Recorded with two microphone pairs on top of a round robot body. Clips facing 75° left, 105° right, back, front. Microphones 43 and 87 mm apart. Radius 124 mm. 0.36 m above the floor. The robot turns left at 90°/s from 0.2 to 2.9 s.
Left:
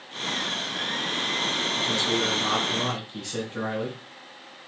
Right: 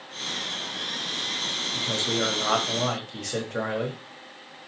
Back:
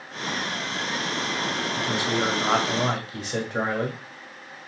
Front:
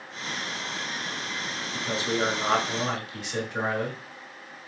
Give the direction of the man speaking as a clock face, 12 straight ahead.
1 o'clock.